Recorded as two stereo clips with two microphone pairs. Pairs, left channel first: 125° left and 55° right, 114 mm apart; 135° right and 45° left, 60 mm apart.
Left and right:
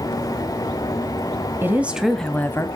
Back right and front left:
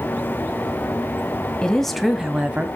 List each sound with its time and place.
1.6 s a woman speaking: 85° right, 1.3 m; by 2.7 s 85° left, 1.3 m